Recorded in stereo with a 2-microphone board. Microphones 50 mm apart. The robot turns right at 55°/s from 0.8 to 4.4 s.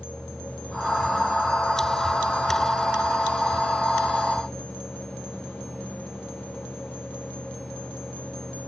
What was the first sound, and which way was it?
Only background noise.